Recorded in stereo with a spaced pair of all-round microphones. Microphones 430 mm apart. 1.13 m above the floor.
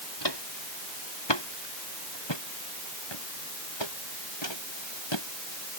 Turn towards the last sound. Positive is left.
turn(degrees=85)